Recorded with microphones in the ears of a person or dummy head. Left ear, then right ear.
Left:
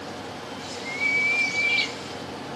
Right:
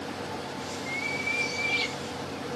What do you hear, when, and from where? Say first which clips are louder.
0.6 s a bird: left 7 dB; 30° left (ahead or behind), 1.8 m